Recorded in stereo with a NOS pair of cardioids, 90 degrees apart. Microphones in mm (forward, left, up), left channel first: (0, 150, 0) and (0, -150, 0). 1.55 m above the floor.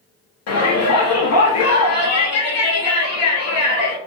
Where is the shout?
65° left, 0.7 m.